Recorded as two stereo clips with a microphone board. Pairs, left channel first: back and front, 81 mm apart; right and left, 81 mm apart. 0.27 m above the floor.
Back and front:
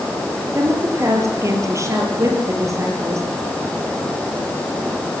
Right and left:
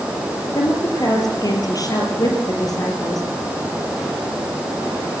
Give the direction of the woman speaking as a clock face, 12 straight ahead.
2 o'clock.